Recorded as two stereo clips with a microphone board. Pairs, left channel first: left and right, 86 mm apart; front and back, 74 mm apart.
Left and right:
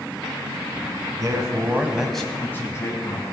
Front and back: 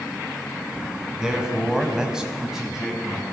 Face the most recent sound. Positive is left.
turn(degrees=95)